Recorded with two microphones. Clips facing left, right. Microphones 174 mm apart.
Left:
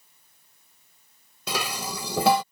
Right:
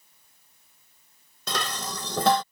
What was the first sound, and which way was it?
Dishes clattering, 10° left (ahead or behind).